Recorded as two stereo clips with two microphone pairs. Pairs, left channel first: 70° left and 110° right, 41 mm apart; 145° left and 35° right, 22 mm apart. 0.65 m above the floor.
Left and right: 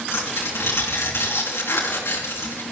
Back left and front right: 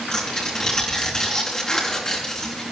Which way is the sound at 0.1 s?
80° left.